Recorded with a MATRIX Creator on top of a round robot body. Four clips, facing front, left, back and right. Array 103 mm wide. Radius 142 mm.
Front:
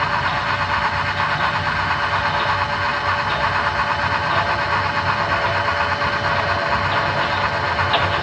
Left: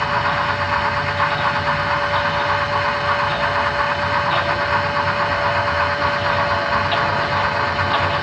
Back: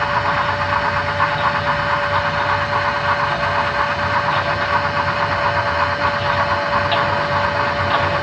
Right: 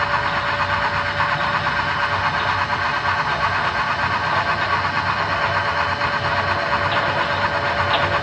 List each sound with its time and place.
Only background noise.